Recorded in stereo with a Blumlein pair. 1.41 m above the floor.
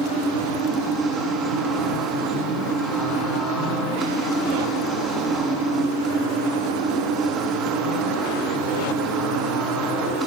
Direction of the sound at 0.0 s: 20° right.